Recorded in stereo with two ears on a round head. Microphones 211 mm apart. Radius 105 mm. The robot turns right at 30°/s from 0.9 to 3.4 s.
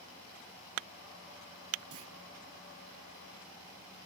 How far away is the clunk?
About 1.1 m.